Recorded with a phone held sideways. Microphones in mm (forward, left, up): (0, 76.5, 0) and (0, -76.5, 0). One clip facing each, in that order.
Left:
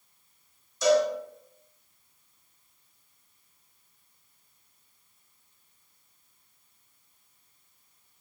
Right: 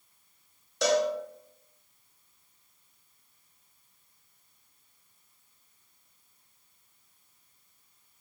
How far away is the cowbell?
About 1.0 m.